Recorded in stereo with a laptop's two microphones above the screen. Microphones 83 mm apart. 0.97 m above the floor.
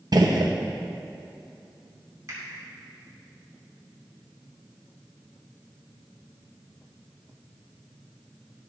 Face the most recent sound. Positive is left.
turn(degrees=-45)  # may be behind; listen again after turning